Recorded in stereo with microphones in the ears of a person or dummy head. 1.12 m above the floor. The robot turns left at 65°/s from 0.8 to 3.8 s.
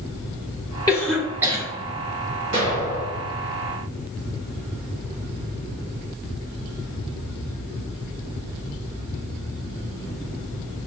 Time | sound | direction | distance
0.9 | a cough | 20° left (ahead or behind) | 1.6 m
2.5 | an explosion | 110° right | 1.9 m